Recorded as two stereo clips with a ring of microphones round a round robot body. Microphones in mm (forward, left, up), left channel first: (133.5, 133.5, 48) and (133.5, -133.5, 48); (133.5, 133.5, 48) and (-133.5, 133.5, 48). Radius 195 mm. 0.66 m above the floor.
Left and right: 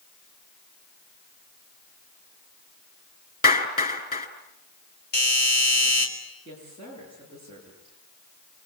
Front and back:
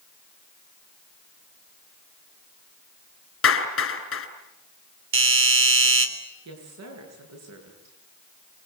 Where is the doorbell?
150° left, 4 m.